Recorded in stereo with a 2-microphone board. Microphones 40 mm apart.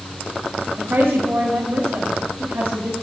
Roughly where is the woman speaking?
Right.